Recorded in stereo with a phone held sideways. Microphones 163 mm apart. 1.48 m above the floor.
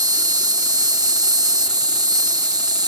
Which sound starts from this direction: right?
An insect, at 0.0 s.